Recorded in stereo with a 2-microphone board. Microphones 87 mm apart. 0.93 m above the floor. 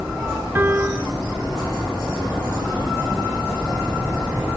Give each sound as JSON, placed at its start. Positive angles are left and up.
{"t": 0.6, "sound": "a piano", "side_deg": -25}